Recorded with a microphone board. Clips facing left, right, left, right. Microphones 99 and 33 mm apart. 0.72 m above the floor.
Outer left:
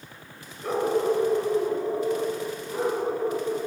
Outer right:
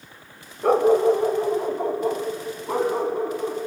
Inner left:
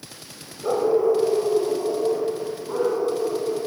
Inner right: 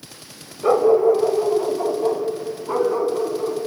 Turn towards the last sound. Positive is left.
turn(degrees=-70)  # may be behind; listen again after turning